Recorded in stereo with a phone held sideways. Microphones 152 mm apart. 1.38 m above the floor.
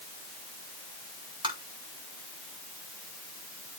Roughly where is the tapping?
Right.